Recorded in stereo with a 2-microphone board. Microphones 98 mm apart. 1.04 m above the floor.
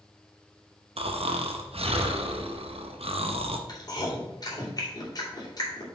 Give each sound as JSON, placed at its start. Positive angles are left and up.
{"t": 1.0, "sound": "snoring", "side_deg": -85, "distance_m": 0.7}
{"t": 3.7, "sound": "chewing", "side_deg": 40, "distance_m": 2.5}